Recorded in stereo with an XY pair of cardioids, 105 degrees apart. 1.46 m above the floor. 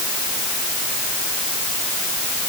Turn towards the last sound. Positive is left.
No sound to turn to.